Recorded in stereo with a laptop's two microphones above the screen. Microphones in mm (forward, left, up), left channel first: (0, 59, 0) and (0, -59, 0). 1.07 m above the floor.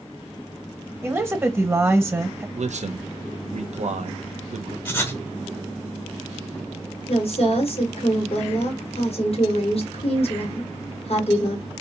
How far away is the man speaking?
About 0.5 m.